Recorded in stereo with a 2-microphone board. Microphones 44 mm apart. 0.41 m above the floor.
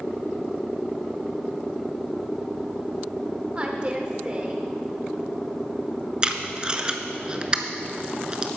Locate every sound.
3.5 s a woman speaking: 25° right (ahead or behind), 0.8 m
6.2 s tape being pulled: 20° right (ahead or behind), 0.7 m